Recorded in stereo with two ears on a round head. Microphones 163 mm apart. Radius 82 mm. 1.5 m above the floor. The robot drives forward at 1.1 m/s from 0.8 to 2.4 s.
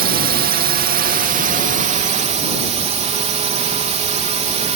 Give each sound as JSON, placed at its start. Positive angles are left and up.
{"t": 0.0, "sound": "a drone", "side_deg": -55}